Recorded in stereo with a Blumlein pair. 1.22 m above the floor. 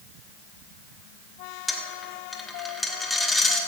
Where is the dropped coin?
5° left, 1.6 m.